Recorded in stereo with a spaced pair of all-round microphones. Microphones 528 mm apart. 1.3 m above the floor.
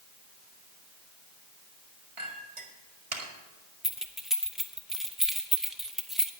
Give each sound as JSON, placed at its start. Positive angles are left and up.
{"t": 2.2, "sound": "a clink", "side_deg": -70, "distance_m": 1.7}
{"t": 3.8, "sound": "keys jangling", "side_deg": 0, "distance_m": 0.7}